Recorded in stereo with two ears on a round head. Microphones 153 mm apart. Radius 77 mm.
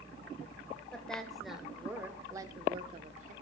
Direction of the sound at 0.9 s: 5° left (ahead or behind).